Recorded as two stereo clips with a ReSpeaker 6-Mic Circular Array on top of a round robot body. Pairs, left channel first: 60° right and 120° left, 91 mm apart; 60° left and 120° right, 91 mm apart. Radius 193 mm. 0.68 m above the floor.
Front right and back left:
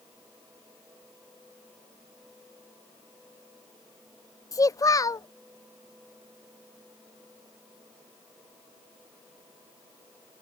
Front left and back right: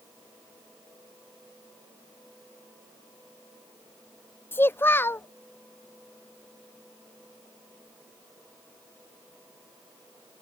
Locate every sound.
4.5 s a child speaking: 5° right